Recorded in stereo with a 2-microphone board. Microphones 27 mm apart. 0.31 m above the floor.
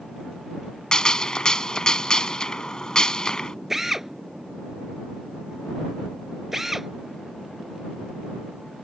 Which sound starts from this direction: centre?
A drill, at 3.7 s.